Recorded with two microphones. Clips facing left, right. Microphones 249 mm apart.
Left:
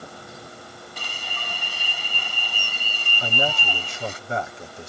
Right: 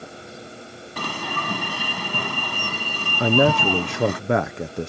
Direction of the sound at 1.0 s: 80° right.